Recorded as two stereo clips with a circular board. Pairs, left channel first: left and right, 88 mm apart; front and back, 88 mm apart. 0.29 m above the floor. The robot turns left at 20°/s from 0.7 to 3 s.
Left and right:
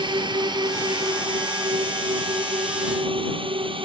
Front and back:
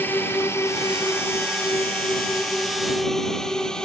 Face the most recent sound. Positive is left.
turn(degrees=-80)